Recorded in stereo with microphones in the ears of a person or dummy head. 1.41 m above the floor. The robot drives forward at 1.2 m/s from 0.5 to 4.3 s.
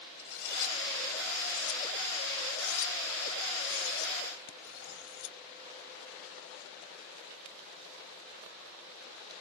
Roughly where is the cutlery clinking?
Left.